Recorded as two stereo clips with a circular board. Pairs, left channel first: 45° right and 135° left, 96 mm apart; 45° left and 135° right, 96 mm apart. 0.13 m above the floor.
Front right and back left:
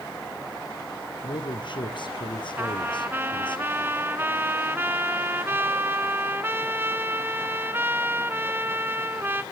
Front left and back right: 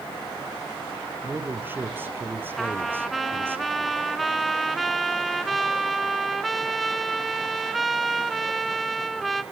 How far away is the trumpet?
About 1.0 m.